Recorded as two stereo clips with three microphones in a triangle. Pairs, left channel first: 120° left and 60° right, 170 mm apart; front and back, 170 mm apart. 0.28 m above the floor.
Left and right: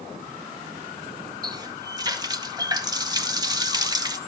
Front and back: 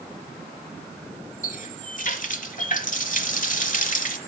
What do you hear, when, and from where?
1.4 s a running tap: straight ahead, 1.1 m